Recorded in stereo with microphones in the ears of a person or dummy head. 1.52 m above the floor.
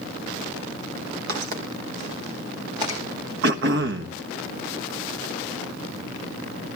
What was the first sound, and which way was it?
Footsteps, 50° right (ahead or behind).